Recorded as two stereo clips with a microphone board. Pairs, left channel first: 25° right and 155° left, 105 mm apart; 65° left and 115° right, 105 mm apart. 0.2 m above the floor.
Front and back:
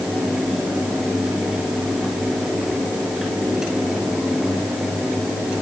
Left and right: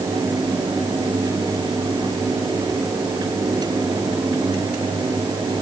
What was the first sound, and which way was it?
Only background noise.